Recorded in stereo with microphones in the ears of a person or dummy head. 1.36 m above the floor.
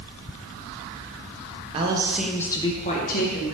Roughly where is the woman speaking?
Right.